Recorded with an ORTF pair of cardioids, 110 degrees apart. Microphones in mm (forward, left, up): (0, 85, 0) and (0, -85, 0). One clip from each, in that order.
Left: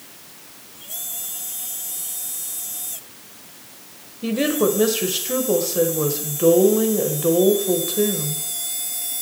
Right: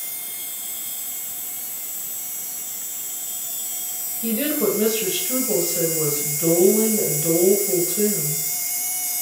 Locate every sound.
4.2 s a woman speaking: 35° left, 1.7 m